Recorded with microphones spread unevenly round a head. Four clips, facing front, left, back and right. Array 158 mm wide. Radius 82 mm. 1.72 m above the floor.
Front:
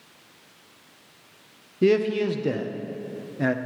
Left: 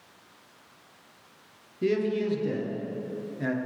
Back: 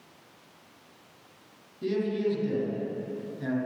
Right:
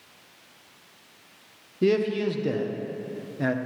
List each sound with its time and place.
1.8 s a man speaking: 25° right, 1.1 m